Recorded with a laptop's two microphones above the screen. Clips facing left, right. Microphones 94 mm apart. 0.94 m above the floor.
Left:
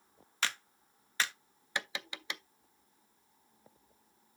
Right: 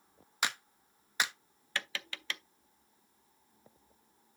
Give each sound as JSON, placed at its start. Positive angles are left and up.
{"t": 0.4, "sound": "a clap", "side_deg": -15, "distance_m": 0.9}
{"t": 1.8, "sound": "tapping", "side_deg": 15, "distance_m": 0.5}